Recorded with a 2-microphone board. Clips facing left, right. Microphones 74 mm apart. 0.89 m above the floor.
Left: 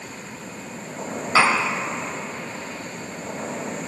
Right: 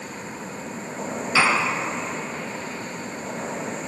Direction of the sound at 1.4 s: 50° left (ahead or behind).